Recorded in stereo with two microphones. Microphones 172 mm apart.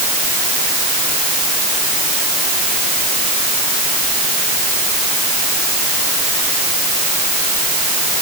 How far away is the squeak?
I don't hear a squeak.